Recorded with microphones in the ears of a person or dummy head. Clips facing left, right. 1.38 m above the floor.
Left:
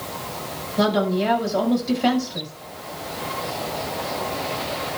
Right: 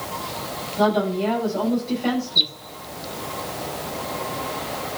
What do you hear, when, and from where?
0.8 s a woman speaking: 75° left (ahead or behind), 7 m